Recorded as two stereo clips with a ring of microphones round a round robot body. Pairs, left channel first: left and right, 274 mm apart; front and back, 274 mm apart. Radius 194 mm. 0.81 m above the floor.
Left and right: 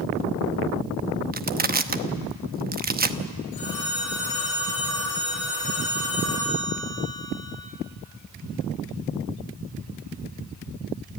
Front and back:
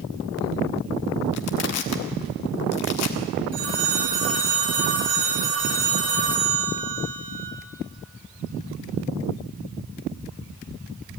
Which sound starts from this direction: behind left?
A phone ringing, at 3.5 s.